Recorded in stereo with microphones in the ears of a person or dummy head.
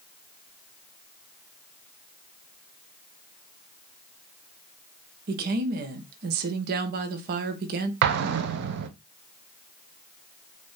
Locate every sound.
5.3 s a woman speaking: 50° right (ahead or behind), 0.9 m
8.0 s an explosion: 65° right (ahead or behind), 0.7 m